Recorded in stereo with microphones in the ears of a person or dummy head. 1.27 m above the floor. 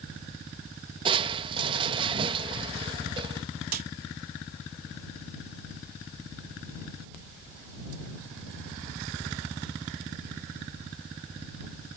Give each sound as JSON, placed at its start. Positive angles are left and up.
{"t": 1.1, "sound": "crushing", "side_deg": -30}
{"t": 3.7, "sound": "a snare drum", "side_deg": -50}